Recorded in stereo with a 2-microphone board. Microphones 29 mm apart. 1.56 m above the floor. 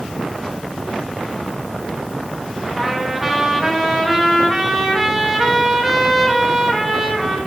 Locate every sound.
2.8 s a trumpet: centre (ahead or behind), 1.2 m